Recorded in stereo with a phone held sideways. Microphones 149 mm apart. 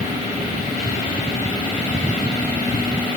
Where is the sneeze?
No sneeze in this recording.